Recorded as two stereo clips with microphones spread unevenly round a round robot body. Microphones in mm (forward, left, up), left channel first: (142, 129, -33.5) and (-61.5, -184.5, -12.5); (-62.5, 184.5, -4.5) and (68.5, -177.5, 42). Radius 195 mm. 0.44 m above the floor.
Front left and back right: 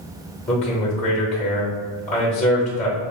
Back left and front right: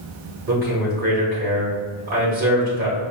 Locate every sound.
0.5 s a man speaking: 5° right, 0.9 m